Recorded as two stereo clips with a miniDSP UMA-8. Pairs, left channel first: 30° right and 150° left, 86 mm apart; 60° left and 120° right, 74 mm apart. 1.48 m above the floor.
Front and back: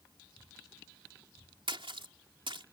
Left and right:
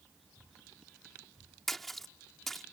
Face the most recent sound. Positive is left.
turn(degrees=145)